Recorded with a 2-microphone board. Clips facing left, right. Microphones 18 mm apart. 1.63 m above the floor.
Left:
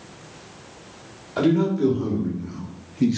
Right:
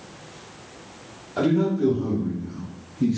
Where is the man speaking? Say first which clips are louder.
Left 1 dB; 20° left (ahead or behind), 1.5 m; by 3.2 s 40° left (ahead or behind), 0.7 m.